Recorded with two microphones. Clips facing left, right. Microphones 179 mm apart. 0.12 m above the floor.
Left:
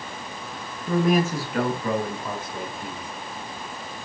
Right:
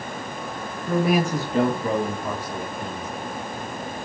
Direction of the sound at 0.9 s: Centre (ahead or behind).